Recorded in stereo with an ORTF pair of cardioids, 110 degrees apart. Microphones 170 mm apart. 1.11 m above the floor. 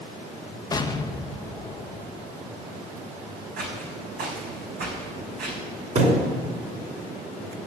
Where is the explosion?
20° left, 0.7 m.